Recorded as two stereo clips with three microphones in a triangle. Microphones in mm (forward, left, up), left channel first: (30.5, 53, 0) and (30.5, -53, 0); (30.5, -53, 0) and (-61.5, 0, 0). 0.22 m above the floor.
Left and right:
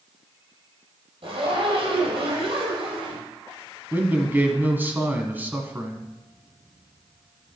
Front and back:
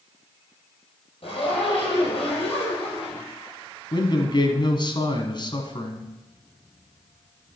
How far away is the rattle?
I don't hear a rattle.